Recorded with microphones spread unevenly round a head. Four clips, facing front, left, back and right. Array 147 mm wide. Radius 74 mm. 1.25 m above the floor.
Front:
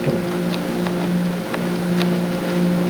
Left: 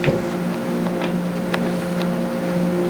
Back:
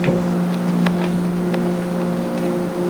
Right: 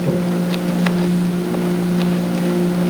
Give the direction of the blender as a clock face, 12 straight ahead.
No blender in this recording.